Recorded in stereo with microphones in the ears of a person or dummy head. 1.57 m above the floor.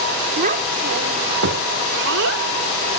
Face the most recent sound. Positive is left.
turn(degrees=-80)